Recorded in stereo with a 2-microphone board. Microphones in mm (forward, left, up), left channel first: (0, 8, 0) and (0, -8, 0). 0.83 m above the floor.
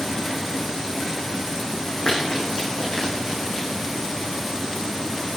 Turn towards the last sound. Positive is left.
turn(degrees=75)  # may be behind; listen again after turning